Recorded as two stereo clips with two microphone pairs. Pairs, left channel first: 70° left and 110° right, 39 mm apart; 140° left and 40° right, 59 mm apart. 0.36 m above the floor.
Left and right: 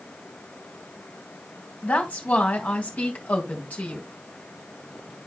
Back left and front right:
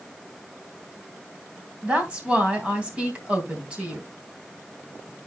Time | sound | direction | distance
1.8 | a woman speaking | 25° left | 3 m